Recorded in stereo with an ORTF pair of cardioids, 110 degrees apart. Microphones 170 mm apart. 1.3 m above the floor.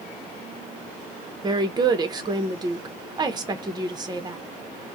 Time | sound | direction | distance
1.4 | a woman speaking | 25° right | 0.7 m